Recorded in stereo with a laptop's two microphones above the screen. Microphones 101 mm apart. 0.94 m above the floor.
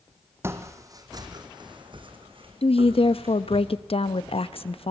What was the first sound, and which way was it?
Footsteps, 25° right (ahead or behind).